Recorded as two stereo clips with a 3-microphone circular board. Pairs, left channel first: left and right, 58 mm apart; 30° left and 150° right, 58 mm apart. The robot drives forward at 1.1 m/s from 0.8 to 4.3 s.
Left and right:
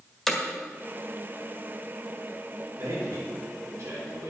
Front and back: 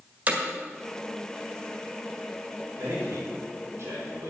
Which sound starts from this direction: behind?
Hammering, at 0.3 s.